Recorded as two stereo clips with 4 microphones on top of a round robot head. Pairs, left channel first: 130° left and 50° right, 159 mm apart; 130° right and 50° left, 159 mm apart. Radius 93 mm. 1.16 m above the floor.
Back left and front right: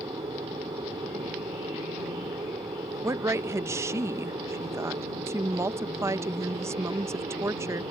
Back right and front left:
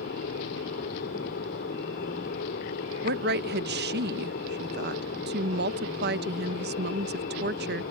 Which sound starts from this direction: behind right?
An aircraft, at 0.0 s.